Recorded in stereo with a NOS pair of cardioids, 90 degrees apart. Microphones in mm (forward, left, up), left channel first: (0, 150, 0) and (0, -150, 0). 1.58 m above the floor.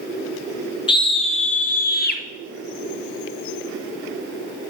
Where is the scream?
15° left, 2.5 m; by 2.2 s 35° left, 2.5 m.